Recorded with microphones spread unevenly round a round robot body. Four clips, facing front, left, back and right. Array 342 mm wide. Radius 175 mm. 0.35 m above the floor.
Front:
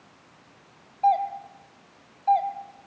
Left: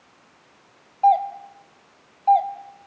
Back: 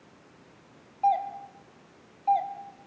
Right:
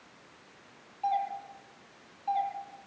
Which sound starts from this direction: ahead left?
A doorbell, at 1.0 s.